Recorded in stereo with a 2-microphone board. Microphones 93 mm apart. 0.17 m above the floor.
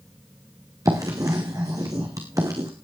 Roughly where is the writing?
Right.